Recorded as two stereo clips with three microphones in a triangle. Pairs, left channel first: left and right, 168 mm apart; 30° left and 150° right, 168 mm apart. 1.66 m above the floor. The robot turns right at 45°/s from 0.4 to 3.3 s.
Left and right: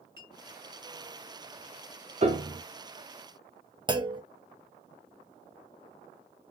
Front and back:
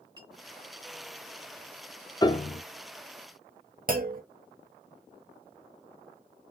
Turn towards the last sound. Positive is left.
turn(degrees=-150)